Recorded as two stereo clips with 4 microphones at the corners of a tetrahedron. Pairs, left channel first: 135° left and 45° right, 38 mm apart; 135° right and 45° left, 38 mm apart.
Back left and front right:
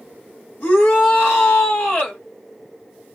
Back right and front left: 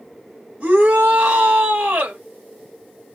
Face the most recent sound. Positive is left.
turn(degrees=95)